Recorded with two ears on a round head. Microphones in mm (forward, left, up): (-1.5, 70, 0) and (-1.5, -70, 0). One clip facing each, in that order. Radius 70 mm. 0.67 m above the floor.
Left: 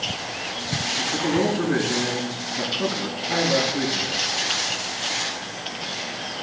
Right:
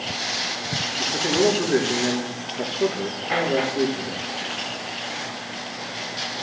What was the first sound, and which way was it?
A man speaking, 65° left (ahead or behind).